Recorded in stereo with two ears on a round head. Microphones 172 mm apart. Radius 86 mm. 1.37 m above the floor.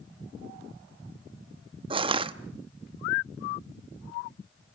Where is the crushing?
30° right (ahead or behind), 0.8 m.